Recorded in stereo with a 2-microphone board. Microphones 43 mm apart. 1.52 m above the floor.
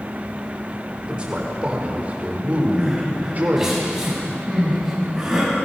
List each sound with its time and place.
1.1 s a man speaking: 25° right (ahead or behind), 4.5 m; by 3.7 s 45° right (ahead or behind), 4.5 m
2.7 s crying: 15° right (ahead or behind), 7 m